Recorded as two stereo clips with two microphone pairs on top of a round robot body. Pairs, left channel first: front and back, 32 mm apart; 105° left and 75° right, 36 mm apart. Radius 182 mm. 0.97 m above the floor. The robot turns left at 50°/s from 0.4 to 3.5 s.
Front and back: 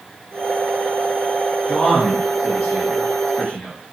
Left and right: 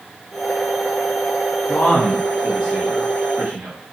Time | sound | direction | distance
1.7 | a man speaking | 70° left | 1.4 m